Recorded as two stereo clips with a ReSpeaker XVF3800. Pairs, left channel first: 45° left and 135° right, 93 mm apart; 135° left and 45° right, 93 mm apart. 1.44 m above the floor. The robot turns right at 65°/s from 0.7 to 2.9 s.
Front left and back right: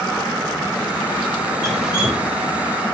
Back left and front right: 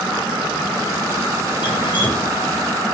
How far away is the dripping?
About 1.7 m.